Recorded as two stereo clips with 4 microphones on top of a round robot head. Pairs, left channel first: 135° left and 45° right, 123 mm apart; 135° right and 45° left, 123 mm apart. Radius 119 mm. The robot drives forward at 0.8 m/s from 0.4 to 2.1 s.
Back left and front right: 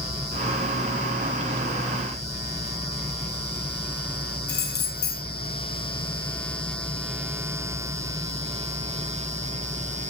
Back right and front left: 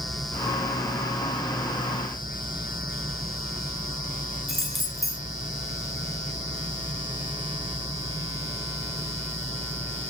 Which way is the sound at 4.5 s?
135° left.